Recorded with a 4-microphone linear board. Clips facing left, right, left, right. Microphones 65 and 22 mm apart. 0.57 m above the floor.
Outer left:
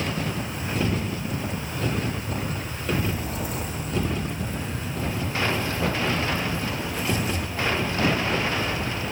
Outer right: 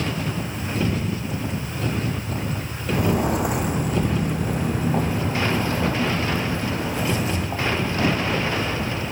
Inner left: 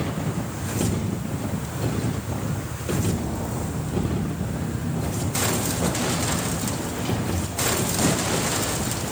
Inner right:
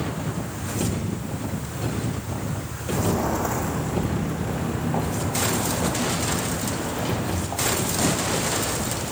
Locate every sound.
2.9 s footsteps: 75° right (ahead or behind), 2 m; by 9.0 s 50° right (ahead or behind), 6 m